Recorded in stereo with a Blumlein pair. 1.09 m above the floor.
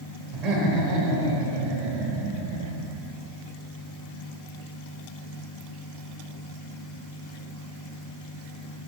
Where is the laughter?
45° right, 3 m; by 2.9 s 65° right, 1.3 m.